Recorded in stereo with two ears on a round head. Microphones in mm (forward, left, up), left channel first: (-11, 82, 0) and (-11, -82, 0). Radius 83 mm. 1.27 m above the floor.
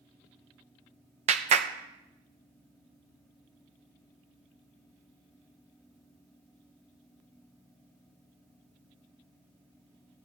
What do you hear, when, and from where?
1.3 s a clap: 35° right (ahead or behind), 0.8 m